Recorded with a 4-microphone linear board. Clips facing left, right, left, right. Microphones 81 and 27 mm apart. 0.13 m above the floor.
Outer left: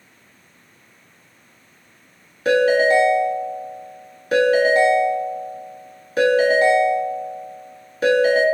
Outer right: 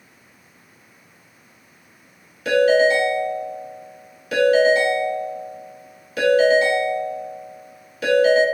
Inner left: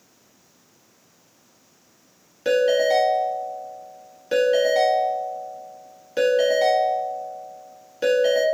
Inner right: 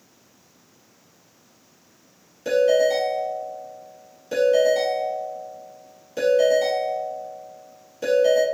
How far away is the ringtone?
About 1.2 m.